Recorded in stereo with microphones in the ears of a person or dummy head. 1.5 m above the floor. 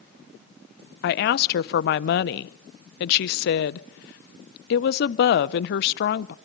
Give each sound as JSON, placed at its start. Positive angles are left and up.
{"t": 1.0, "sound": "a woman speaking", "side_deg": 55, "distance_m": 0.7}